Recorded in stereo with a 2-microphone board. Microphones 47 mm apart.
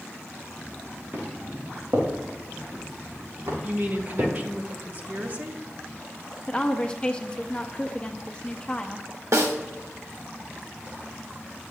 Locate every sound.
1.1 s footsteps: 45° right (ahead or behind), 3.5 m; by 4.3 s 75° right (ahead or behind), 4.5 m
3.6 s a woman speaking: 35° right (ahead or behind), 1.0 m
6.5 s a woman speaking: 20° left (ahead or behind), 0.6 m
9.3 s a snare drum: 80° right, 1.0 m